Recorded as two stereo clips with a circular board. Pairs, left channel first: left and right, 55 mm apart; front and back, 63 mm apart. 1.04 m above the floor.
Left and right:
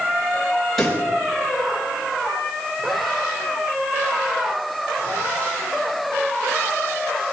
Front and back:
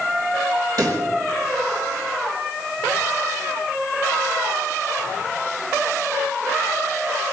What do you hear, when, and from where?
0.8 s a pop: 170° left, 4.5 m